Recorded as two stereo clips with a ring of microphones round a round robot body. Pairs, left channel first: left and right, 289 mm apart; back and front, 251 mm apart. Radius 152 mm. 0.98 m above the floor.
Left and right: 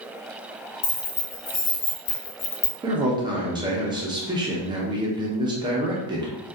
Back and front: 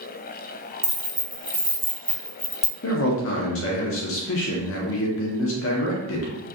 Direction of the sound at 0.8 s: 65° left.